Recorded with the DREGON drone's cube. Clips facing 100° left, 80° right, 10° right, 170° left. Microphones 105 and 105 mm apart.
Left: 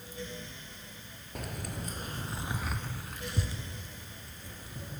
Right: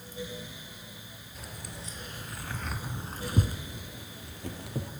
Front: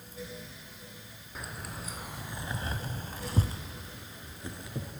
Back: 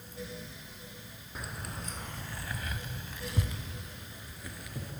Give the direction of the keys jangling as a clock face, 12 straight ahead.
9 o'clock.